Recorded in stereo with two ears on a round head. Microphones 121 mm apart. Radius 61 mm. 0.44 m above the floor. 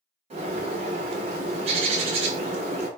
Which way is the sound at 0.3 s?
45° right (ahead or behind).